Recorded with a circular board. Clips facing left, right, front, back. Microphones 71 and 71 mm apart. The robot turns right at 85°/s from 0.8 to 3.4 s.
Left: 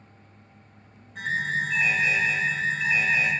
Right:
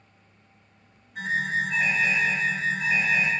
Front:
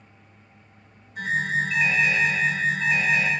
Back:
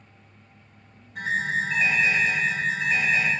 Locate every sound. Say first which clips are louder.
1.1 s an alarm: right 1 dB, front 1 dB; 175° right, 1.6 m; by 3.3 s 5° left, 1.6 m